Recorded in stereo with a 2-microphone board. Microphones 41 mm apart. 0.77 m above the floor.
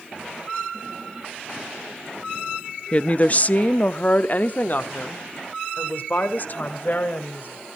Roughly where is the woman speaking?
Left.